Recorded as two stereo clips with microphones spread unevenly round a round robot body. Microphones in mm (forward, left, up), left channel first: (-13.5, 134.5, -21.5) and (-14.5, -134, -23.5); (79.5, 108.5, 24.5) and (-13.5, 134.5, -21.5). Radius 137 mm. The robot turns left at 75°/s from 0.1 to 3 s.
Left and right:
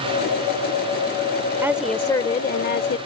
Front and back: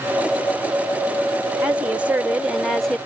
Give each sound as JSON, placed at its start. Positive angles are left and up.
{"t": 1.6, "sound": "a woman speaking", "azimuth_deg": -160}